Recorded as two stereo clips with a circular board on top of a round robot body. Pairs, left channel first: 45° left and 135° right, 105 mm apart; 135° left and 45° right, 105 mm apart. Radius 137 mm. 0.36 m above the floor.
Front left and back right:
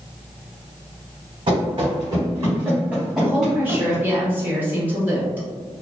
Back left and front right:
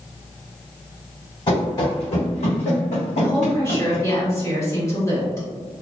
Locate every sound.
1.5 s running footsteps: 175° right, 1.3 m; by 4.1 s 120° left, 1.5 m
3.2 s a woman speaking: 170° left, 1.5 m